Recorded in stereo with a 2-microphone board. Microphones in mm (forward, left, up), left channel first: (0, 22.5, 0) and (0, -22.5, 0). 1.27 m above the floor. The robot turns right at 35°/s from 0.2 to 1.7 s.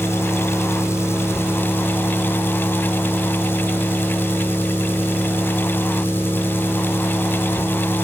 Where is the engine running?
70° left, 3.5 m; by 8.1 s 125° left, 3.5 m.